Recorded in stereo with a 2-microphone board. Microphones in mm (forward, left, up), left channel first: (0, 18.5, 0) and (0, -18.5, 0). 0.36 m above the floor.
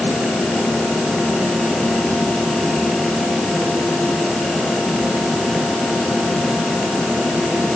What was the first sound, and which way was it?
Only background noise.